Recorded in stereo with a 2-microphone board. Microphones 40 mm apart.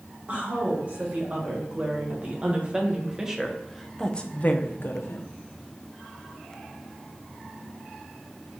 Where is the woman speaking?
35° right (ahead or behind), 2.5 m; by 5.2 s 75° left (ahead or behind), 0.7 m.